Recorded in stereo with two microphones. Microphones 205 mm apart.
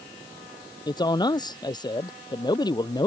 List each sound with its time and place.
0.9 s a man speaking: 20° left (ahead or behind)